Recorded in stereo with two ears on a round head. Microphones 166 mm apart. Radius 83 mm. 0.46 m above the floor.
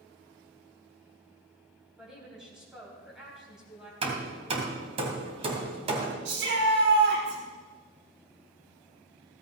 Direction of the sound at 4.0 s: 30° right (ahead or behind).